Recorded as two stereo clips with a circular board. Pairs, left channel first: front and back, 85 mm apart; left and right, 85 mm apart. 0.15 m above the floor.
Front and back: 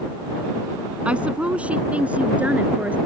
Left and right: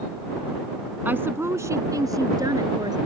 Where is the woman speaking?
120° right; by 3.0 s 110° right.